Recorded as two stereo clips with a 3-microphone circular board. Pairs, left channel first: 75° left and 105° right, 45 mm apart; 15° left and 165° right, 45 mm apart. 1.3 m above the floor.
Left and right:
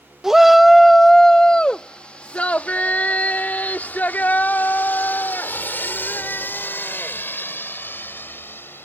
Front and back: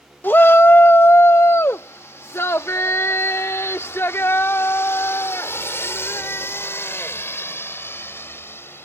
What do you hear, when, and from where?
0.2 s a shout: 25° right; by 8.8 s 40° left